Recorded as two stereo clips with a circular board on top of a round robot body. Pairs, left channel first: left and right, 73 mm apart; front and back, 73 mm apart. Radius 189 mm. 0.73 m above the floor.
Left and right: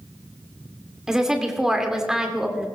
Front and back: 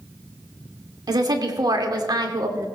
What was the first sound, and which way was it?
A woman speaking, 170° right.